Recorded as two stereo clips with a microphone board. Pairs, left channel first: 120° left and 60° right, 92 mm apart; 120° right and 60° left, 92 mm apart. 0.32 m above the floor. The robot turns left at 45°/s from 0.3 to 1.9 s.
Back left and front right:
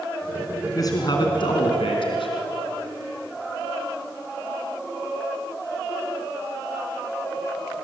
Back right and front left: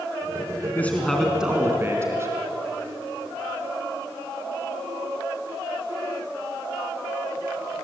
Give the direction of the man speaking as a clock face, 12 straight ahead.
6 o'clock.